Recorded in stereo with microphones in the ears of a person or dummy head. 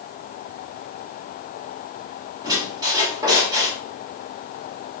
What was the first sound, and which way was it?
A squeak, 15° right (ahead or behind).